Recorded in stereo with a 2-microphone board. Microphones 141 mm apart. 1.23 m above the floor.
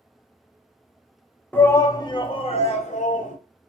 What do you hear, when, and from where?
1.5 s a shout: 10° left (ahead or behind), 0.7 m; by 3.4 s 60° left (ahead or behind), 1.2 m